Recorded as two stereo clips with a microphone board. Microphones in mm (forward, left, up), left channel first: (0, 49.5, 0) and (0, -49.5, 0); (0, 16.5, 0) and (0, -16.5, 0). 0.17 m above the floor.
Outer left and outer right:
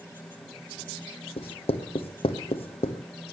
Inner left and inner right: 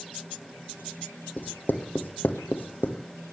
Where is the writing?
65° left (ahead or behind), 1.3 m.